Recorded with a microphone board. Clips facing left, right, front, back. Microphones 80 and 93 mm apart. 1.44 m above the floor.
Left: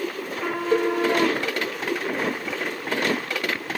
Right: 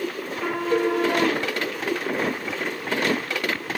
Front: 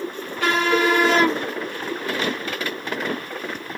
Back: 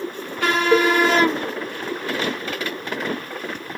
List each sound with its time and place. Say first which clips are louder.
0.7 s a cowbell: left 1 dB, back 5 dB; 155° left, 1.5 m